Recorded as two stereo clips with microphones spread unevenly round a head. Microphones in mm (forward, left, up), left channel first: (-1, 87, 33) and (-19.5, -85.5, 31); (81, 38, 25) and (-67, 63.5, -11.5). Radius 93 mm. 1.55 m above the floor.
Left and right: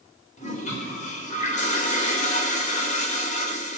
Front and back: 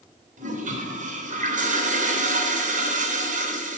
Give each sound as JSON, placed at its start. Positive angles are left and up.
{"t": 0.4, "sound": "a toilet flushing", "azimuth_deg": 130, "distance_m": 3.5}